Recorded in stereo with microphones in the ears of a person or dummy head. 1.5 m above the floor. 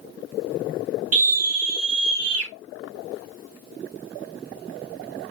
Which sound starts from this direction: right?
A scream, at 1.1 s.